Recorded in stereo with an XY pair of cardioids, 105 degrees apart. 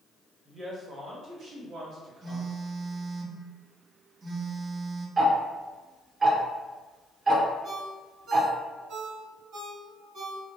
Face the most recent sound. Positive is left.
turn(degrees=-70)